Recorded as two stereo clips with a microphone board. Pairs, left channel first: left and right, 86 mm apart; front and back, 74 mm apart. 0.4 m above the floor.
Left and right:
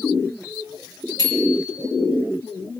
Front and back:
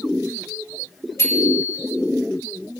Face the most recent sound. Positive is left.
turn(degrees=50)